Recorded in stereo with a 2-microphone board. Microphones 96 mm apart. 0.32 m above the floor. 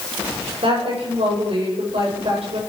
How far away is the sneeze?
No sneeze in this recording.